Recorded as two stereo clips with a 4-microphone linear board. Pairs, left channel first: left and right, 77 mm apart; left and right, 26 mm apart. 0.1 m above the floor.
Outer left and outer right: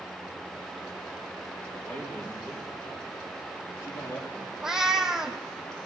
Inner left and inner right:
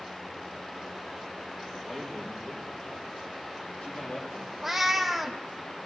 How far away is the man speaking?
About 4 m.